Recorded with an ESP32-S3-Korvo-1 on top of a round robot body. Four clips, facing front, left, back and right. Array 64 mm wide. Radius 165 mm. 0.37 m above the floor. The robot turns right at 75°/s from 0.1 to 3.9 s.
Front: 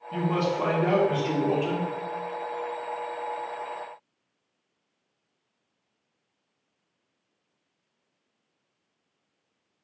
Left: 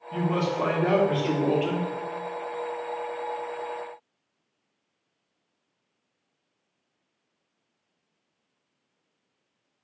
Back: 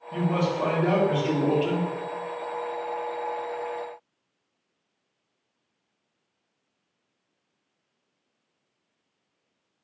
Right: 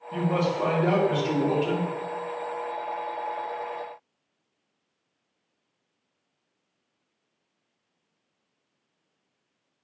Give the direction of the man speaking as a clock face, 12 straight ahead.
12 o'clock.